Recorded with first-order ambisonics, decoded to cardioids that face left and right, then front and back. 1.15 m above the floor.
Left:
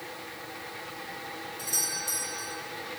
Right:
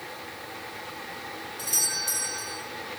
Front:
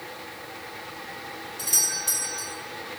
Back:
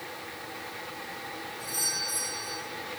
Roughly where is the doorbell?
Ahead.